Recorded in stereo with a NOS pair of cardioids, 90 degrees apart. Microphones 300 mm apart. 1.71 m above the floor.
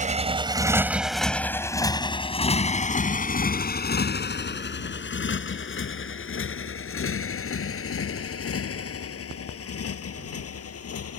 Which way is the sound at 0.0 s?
25° right.